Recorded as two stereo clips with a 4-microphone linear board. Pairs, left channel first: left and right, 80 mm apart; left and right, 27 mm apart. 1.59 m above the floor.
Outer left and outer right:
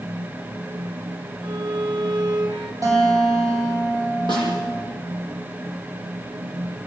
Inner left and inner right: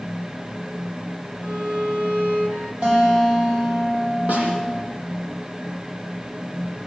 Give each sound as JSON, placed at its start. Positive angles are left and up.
{"t": 1.4, "sound": "a violin", "side_deg": -70, "distance_m": 2.0}
{"t": 2.8, "sound": "a guitar", "side_deg": -45, "distance_m": 9.5}
{"t": 4.3, "sound": "a snare drum", "side_deg": -70, "distance_m": 9.0}